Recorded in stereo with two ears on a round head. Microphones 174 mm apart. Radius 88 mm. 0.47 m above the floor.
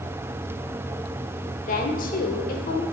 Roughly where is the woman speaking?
Left.